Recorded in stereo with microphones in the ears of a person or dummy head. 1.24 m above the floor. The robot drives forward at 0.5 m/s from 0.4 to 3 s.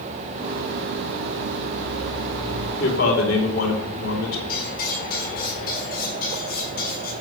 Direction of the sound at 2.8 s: 85° left.